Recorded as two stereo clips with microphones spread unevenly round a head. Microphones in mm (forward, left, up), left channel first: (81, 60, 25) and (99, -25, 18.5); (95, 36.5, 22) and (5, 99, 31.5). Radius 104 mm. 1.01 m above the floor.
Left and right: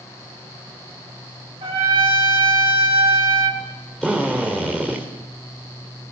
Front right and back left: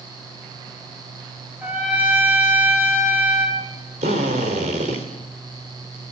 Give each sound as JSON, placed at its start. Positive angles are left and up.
{"t": 1.6, "sound": "a trumpet", "azimuth_deg": -135, "distance_m": 2.5}
{"t": 4.0, "sound": "a drill", "azimuth_deg": -170, "distance_m": 3.0}